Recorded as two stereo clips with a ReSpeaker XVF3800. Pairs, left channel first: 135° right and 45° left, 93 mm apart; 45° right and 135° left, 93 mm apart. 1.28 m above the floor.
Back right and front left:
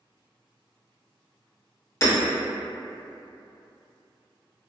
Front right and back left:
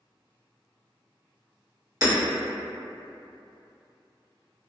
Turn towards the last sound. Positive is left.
turn(degrees=175)